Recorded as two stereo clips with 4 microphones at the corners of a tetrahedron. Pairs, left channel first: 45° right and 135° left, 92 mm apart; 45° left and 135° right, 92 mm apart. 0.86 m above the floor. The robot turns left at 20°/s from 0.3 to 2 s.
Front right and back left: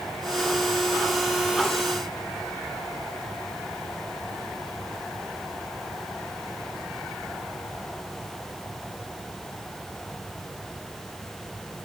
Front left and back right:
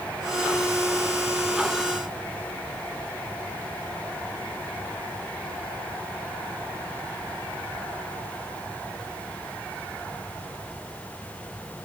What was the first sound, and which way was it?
Only background noise.